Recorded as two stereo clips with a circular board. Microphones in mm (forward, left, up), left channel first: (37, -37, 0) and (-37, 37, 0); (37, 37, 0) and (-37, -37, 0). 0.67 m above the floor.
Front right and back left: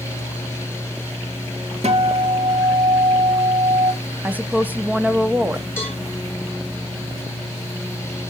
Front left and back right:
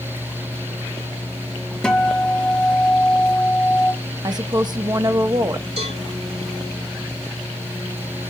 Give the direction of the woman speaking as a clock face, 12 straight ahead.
5 o'clock.